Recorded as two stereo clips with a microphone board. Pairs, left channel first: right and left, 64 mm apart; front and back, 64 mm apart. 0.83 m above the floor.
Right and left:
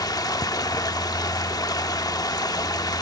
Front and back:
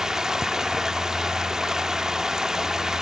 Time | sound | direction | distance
0.0 | running water | 95° right | 0.9 m